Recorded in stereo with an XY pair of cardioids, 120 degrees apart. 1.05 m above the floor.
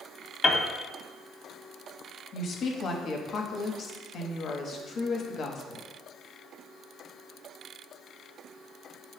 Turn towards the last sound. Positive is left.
turn(degrees=50)